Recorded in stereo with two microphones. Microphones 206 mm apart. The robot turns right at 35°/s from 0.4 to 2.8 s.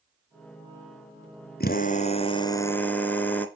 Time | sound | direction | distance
1.6 | a drill | 130° left | 1.3 m